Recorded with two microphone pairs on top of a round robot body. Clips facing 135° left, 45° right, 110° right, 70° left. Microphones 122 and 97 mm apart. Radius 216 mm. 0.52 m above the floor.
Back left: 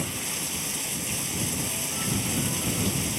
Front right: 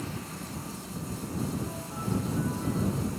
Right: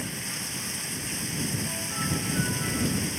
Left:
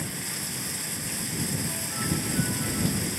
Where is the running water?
155° left.